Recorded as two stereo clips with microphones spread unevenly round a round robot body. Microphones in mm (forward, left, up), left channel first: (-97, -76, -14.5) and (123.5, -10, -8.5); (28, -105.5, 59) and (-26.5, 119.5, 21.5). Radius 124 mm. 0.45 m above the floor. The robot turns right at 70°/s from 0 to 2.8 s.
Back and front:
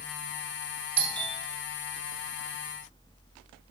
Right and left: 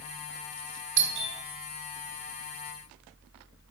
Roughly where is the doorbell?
Left.